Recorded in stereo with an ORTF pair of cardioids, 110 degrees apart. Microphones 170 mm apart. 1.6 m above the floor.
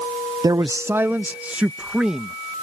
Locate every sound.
0.4 s a man speaking: 25° right; by 2.4 s 5° right